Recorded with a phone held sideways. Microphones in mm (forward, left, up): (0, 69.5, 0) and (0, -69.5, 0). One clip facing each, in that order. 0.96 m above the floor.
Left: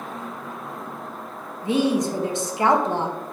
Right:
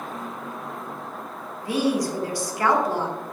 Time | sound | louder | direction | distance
1.6 | a woman speaking | left 2 dB | 20° left (ahead or behind) | 0.5 m